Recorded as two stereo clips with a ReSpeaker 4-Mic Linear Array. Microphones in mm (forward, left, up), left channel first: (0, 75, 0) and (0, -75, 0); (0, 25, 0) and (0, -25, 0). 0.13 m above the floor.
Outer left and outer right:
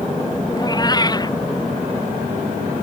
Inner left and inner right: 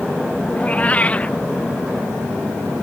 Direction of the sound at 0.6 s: 25° left (ahead or behind).